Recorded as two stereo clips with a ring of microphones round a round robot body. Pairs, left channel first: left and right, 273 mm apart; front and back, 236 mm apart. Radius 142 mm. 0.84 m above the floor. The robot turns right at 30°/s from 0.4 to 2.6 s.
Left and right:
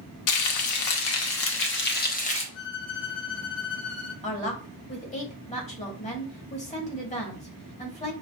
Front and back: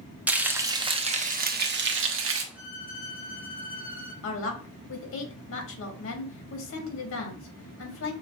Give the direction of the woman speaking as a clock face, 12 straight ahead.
11 o'clock.